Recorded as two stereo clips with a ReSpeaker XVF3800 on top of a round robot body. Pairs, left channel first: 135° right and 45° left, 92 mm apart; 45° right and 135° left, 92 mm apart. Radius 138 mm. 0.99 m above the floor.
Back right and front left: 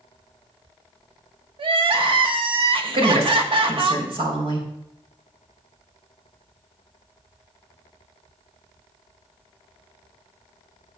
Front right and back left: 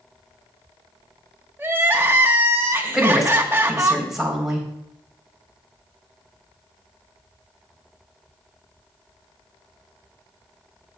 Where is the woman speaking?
50° left, 3.5 m.